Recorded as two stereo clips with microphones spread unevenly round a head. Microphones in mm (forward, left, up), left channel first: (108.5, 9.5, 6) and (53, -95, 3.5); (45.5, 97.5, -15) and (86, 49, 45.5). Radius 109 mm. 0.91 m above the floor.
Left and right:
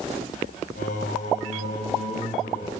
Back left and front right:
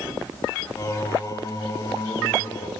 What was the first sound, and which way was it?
Singing, 90° left.